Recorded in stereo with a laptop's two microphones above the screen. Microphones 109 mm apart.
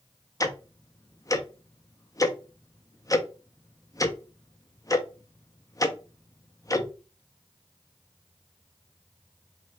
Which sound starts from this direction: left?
Ticking, at 0.4 s.